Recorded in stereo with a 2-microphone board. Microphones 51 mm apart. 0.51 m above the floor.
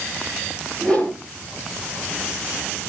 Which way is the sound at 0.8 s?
20° left (ahead or behind).